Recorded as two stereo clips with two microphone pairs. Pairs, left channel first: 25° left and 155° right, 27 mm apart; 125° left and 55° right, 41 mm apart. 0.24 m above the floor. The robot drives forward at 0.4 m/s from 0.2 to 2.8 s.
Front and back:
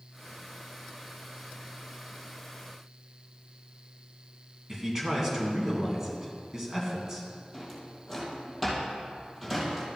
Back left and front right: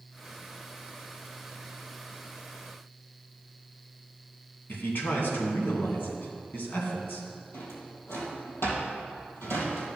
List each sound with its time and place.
4.7 s a man speaking: 135° left, 2.5 m
7.5 s a drawer: 115° left, 3 m